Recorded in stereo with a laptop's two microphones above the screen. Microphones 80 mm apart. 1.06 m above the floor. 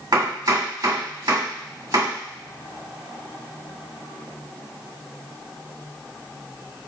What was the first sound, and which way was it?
Chopping, 70° right (ahead or behind).